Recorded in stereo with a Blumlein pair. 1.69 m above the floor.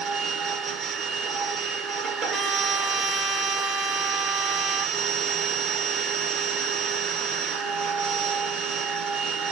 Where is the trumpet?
20° right, 2.0 m.